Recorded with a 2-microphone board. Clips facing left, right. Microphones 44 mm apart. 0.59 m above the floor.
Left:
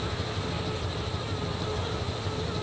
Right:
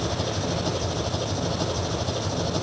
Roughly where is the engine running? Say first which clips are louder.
Right 5 dB; right.